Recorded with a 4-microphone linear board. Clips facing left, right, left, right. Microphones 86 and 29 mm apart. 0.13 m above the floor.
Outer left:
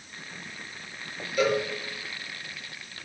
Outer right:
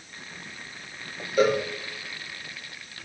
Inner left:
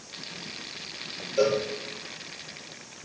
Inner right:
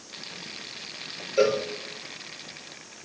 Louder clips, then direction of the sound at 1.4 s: Outer right 3 dB, inner right 1 dB; 35° right (ahead or behind).